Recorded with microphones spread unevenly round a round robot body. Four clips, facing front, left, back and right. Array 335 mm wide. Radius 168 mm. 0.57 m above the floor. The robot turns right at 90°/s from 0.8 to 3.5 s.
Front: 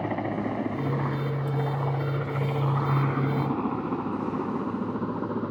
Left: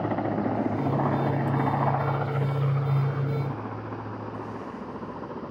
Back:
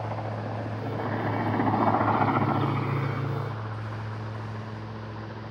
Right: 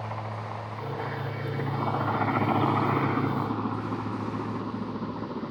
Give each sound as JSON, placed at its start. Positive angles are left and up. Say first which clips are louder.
{"t": 0.0, "sound": "a helicopter", "louder": "left 9 dB, front 5 dB", "azimuth_deg": 60}